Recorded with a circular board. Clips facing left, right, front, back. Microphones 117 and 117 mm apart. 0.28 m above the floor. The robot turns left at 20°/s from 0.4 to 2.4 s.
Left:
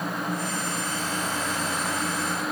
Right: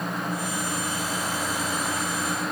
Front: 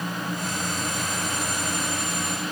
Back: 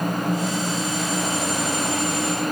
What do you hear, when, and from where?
Only background noise.